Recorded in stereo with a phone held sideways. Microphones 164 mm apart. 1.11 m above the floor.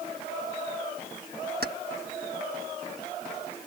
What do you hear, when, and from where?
1.6 s keys jangling: 80° right